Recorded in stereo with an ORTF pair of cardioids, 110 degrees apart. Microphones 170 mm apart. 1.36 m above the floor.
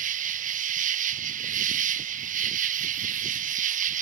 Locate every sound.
0.0 s an insect: 50° right